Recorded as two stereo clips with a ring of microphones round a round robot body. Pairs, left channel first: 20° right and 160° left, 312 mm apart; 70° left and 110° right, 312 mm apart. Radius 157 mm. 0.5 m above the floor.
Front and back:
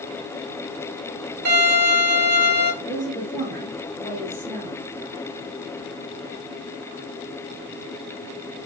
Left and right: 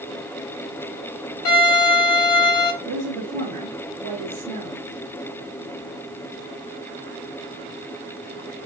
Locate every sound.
1.4 s a violin: 105° left, 2.5 m
2.8 s a woman speaking: 125° right, 1.6 m